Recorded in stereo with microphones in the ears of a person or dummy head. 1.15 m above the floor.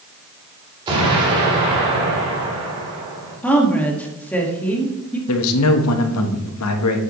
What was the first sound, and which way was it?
An explosion, 25° right (ahead or behind).